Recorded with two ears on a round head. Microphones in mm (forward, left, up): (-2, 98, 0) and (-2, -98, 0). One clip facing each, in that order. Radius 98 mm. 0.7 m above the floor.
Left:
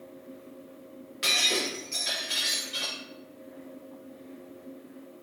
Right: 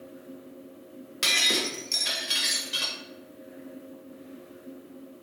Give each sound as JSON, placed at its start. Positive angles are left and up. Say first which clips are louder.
{"t": 1.2, "sound": "breaking glass", "louder": "even", "side_deg": -65, "distance_m": 1.4}